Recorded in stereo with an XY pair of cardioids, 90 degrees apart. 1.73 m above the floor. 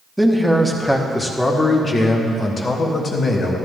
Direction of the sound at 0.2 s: 5° right.